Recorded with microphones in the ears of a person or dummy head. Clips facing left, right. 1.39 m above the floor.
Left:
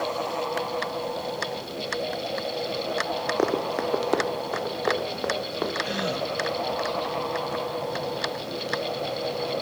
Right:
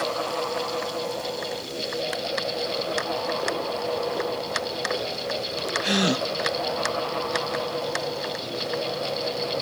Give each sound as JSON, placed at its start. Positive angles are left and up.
{"t": 3.4, "sound": "running footsteps", "side_deg": 65, "distance_m": 3.0}
{"t": 5.8, "sound": "a gasp", "side_deg": -75, "distance_m": 1.3}